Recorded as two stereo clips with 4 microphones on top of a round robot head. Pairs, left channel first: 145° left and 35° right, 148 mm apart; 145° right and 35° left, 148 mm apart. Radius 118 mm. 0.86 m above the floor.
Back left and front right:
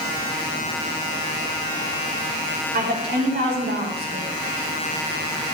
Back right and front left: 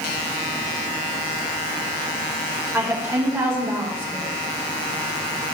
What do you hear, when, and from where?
2.7 s a woman speaking: 40° right, 3.5 m